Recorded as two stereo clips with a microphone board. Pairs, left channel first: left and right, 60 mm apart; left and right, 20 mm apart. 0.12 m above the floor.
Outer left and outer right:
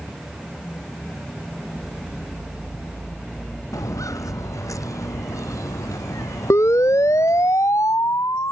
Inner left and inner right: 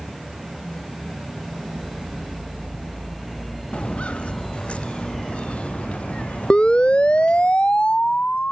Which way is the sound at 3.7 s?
70° left (ahead or behind).